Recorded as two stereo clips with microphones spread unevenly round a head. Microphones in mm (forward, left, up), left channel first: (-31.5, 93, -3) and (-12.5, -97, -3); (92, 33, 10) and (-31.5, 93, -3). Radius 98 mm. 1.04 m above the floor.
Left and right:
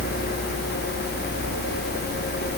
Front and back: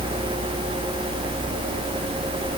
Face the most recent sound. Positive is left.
No sound to turn to.